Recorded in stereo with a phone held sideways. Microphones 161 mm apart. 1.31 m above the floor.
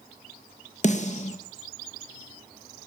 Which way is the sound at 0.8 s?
45° left (ahead or behind).